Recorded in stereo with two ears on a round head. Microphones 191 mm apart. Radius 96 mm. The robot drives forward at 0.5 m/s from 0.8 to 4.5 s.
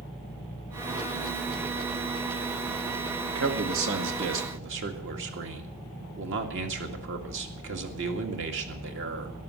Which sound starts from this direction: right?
A man speaking, at 3.4 s.